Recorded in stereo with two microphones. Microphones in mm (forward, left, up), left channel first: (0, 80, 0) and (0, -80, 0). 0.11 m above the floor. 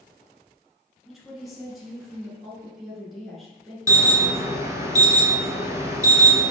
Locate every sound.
1.1 s a woman speaking: centre (ahead or behind), 1.8 m
3.9 s an alarm: 20° right (ahead or behind), 0.8 m